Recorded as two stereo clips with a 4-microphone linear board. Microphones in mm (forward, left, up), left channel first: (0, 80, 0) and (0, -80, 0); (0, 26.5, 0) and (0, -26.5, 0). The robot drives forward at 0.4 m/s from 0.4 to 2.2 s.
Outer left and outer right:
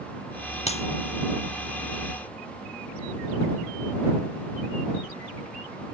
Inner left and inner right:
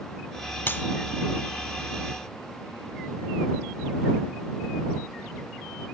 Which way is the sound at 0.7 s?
40° left (ahead or behind).